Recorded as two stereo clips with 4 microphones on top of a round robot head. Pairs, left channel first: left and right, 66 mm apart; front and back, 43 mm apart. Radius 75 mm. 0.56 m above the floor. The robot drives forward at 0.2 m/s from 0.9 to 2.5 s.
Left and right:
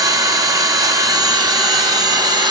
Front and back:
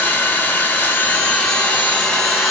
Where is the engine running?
65° right, 1.2 m; by 2.5 s 80° right, 1.1 m.